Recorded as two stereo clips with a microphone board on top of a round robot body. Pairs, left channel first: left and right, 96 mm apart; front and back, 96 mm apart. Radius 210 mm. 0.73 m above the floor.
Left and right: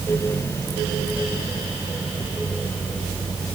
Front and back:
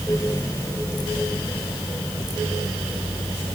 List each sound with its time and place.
Only background noise.